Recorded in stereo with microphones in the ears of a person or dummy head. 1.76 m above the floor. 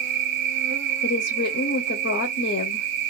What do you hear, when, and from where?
0.0 s an insect: 65° right (ahead or behind), 1.0 m
1.0 s a woman speaking: 50° left (ahead or behind), 0.7 m